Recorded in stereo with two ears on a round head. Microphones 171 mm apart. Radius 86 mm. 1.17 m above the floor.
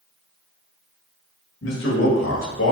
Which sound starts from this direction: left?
A man speaking, at 1.6 s.